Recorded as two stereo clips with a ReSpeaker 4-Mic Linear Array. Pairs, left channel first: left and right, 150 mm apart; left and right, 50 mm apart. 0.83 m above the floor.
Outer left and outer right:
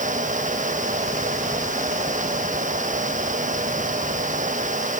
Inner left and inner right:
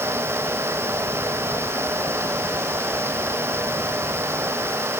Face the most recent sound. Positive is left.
No sound to turn to.